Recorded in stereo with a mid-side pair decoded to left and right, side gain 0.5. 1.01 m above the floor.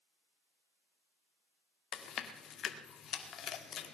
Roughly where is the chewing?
Ahead left.